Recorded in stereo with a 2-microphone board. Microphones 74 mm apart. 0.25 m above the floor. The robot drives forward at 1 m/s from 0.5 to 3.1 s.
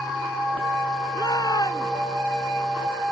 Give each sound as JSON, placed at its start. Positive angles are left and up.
{"t": 1.1, "sound": "a shout", "side_deg": 70}